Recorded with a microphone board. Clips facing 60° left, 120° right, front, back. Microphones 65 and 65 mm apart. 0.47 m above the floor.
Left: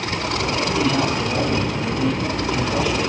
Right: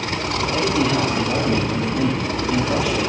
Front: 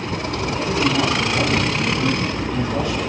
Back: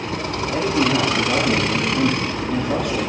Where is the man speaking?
155° right, 8 m; by 3.1 s 150° right, 9.5 m.